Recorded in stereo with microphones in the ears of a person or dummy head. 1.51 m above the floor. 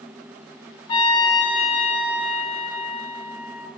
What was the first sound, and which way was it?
A trumpet, 25° left (ahead or behind).